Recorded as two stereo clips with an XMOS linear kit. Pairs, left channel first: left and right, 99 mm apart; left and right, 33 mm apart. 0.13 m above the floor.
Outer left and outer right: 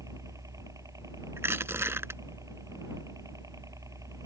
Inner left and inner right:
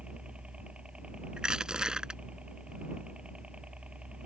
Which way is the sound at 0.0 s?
35° right (ahead or behind).